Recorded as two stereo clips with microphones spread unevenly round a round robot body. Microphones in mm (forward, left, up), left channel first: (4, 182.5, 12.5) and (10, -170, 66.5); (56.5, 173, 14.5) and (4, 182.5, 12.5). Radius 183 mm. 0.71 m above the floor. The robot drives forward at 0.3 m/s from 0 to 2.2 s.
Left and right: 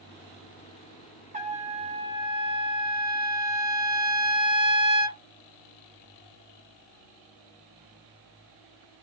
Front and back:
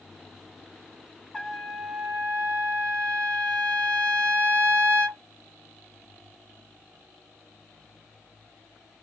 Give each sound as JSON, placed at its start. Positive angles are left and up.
{"t": 1.3, "sound": "a trumpet", "azimuth_deg": -95, "distance_m": 0.5}